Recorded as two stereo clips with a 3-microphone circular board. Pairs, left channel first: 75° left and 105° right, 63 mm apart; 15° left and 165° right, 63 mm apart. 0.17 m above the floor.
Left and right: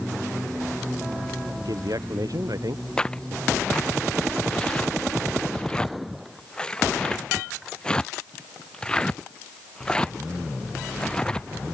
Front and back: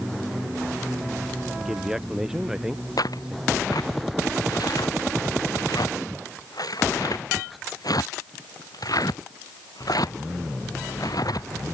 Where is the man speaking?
85° right.